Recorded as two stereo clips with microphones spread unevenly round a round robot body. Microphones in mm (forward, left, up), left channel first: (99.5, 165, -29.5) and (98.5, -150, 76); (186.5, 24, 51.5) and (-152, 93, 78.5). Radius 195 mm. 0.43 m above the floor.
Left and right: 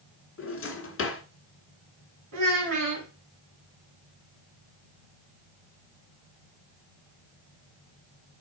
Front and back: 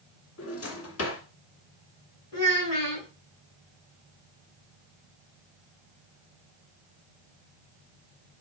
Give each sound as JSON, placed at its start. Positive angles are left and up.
{"t": 0.4, "sound": "a drawer", "azimuth_deg": 40, "distance_m": 1.9}
{"t": 2.3, "sound": "a child speaking", "azimuth_deg": -60, "distance_m": 3.5}